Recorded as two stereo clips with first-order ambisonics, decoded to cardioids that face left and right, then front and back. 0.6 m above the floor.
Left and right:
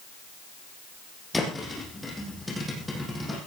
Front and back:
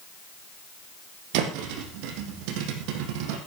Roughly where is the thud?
Behind.